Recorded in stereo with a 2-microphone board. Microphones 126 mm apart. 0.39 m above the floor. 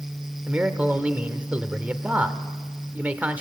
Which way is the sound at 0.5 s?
10° right (ahead or behind).